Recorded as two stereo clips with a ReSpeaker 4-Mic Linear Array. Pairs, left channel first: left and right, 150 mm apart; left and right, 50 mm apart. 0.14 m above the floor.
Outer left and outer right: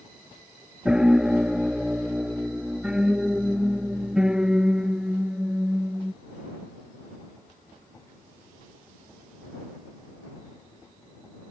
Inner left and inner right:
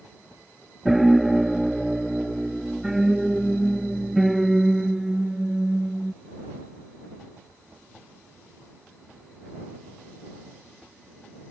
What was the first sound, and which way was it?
A piano, 5° right (ahead or behind).